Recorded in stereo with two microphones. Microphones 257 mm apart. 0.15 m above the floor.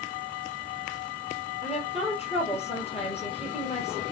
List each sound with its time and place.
1.6 s a woman speaking: 25° left (ahead or behind), 2.5 m